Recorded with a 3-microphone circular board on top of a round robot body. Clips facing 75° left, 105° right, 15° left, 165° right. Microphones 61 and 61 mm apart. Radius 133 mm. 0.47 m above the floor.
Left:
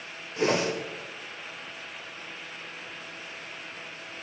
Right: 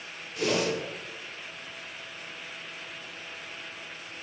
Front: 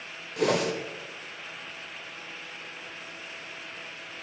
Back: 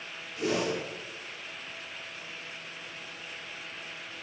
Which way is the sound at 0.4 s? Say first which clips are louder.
Left 2 dB, front 4 dB; 15° left.